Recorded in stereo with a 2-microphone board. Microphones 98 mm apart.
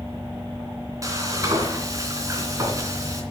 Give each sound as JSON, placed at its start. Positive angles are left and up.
{"t": 1.0, "sound": "frying", "side_deg": -35, "distance_m": 2.5}